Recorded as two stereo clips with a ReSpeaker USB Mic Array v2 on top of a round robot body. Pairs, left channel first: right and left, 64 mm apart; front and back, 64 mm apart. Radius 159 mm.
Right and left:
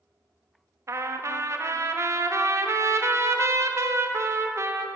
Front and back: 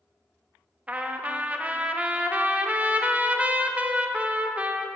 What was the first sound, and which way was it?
A trumpet, 115° left.